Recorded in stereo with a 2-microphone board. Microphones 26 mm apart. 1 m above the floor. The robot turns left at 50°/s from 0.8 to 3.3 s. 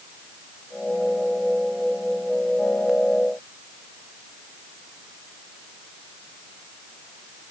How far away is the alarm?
I don't hear an alarm.